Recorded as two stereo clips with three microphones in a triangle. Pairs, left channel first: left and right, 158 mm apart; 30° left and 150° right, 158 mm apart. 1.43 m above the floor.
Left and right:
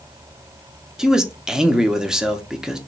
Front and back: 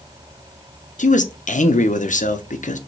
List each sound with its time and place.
1.0 s a man speaking: 5° right, 0.7 m